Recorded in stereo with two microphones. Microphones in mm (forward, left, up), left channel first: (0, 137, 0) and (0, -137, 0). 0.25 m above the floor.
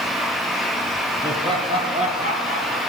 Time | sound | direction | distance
1.2 | laughter | 10° right (ahead or behind) | 4.5 m